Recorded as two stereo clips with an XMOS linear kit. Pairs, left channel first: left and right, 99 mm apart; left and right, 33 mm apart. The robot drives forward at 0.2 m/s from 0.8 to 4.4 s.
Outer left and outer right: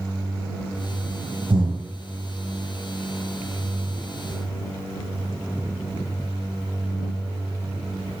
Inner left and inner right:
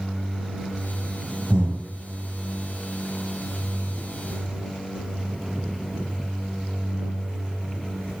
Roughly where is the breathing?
Right.